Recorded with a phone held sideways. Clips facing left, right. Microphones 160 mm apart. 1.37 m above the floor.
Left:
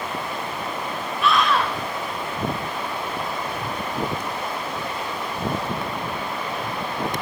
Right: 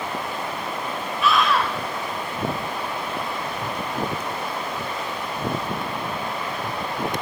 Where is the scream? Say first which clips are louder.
Even; centre (ahead or behind), 6 m.